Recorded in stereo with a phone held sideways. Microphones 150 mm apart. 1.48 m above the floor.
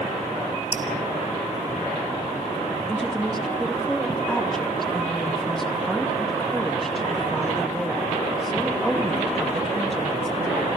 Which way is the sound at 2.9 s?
Centre (ahead or behind).